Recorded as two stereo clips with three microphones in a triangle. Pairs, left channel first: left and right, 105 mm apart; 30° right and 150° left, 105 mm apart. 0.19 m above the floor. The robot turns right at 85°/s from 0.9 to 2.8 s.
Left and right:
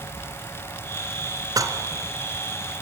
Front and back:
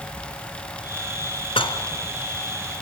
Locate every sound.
1.6 s dishes clattering: 45° right, 1.5 m; by 1.8 s 25° right, 1.5 m